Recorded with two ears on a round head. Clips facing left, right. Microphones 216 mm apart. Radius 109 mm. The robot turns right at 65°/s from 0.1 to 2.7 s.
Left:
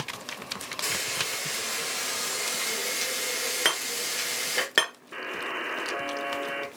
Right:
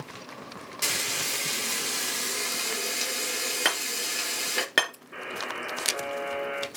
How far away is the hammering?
About 3 m.